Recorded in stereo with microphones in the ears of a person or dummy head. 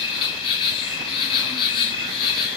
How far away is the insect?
About 1.2 m.